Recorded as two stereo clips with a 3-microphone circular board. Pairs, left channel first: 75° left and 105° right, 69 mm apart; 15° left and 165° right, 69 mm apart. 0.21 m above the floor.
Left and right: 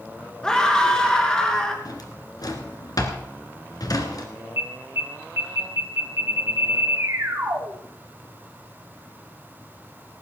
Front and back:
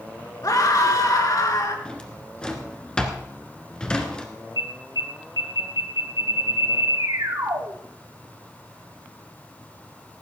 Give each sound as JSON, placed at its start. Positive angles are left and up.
{"t": 0.4, "sound": "a scream", "azimuth_deg": -5, "distance_m": 3.5}
{"t": 1.9, "sound": "a drawer", "azimuth_deg": 90, "distance_m": 2.0}
{"t": 4.6, "sound": "an alarm", "azimuth_deg": -155, "distance_m": 3.0}